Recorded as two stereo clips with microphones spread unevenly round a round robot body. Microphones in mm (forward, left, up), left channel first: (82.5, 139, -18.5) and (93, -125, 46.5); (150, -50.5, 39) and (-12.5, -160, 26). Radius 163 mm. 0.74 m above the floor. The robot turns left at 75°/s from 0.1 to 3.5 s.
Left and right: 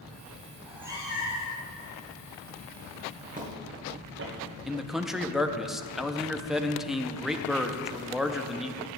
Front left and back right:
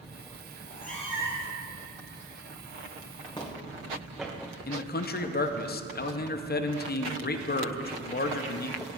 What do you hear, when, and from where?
0.6 s a cat meowing: 10° left, 2.5 m; by 1.6 s 65° right, 2.5 m
3.4 s footsteps: 30° right, 2.5 m; by 4.6 s 60° right, 2 m
4.7 s a man speaking: 15° left, 0.7 m